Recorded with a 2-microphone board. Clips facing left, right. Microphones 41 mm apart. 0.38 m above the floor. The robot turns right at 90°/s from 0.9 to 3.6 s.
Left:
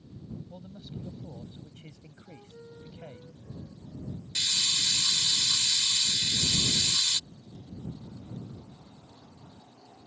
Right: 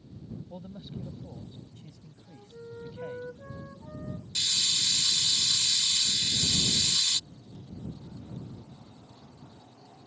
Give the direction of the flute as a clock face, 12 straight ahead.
7 o'clock.